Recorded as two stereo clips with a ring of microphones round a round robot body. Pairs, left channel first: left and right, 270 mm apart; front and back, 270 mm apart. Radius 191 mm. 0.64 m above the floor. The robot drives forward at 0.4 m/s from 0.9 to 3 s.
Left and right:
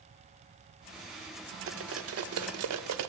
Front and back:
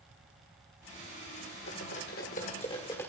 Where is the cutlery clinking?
55° right, 1.1 m; by 3.1 s 85° right, 0.9 m.